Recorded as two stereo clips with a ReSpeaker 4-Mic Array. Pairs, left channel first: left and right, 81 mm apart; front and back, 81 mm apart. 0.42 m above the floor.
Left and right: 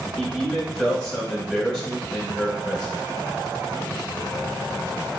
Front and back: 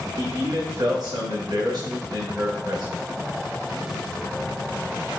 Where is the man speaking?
Straight behind, 2.5 m.